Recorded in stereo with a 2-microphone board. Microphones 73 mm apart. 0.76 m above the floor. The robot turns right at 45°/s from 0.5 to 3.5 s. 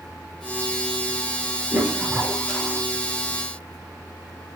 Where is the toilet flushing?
30° right, 4 m; by 2.8 s 15° left, 4 m.